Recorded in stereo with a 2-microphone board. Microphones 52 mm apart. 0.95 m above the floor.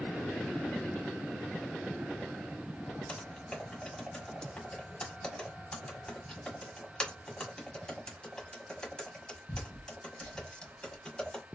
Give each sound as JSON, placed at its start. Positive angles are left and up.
{"t": 3.1, "sound": "typing on a keyboard", "side_deg": 15, "distance_m": 1.3}